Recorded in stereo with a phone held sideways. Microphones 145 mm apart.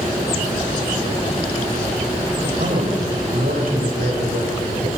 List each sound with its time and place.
2.4 s a man speaking: 80° right, 5 m